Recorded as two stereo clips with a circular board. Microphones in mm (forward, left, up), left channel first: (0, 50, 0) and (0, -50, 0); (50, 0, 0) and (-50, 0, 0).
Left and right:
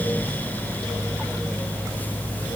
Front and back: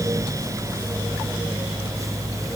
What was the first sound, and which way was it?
Only background noise.